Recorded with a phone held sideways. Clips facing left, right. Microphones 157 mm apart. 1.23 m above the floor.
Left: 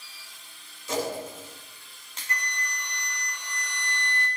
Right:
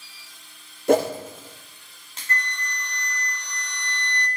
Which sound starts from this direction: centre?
A flute, at 2.3 s.